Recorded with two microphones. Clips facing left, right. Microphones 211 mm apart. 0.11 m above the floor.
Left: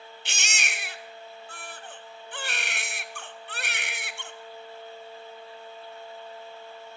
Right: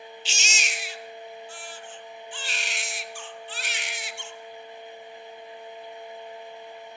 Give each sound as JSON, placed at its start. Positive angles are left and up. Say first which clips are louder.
{"t": 0.2, "sound": "a baby crying", "louder": "right 1 dB", "side_deg": 65, "distance_m": 1.1}